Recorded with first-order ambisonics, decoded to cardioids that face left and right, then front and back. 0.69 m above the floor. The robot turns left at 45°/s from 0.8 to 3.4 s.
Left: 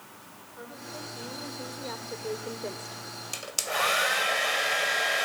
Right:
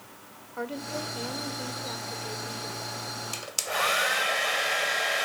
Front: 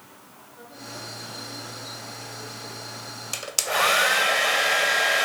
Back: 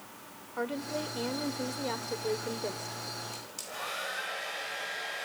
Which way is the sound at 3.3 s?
Straight ahead.